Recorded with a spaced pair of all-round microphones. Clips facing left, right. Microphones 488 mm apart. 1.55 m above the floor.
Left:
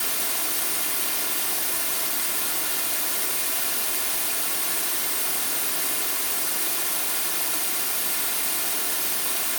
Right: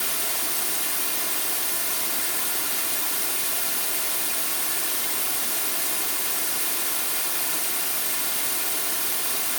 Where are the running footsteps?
I don't hear running footsteps.